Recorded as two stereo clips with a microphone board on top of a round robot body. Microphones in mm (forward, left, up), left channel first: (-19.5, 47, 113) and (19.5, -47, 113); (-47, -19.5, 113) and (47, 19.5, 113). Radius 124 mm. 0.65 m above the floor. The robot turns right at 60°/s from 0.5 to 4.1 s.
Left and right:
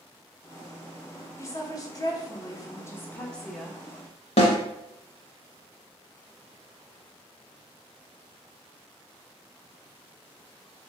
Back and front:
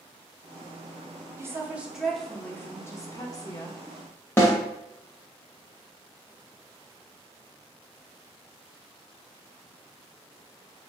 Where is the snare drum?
135° left, 0.5 m.